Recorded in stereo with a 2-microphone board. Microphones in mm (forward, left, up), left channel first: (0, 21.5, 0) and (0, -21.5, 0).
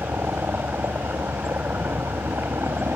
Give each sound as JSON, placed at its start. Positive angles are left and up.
{"t": 0.0, "sound": "a helicopter", "side_deg": -65}